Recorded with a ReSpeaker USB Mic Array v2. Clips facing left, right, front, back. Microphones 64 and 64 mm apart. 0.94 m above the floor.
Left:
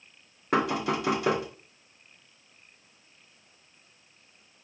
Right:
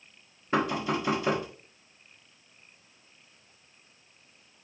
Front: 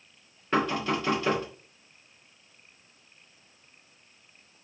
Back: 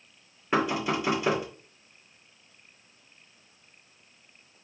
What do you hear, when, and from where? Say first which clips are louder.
0.5 s knocking: left 1 dB, even; 100° left, 2.5 m